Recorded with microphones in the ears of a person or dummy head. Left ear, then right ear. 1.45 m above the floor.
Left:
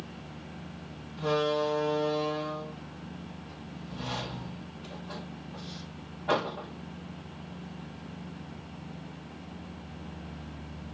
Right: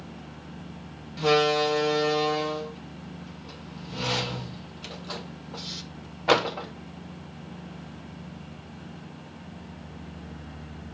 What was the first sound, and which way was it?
A door slam, 70° right (ahead or behind).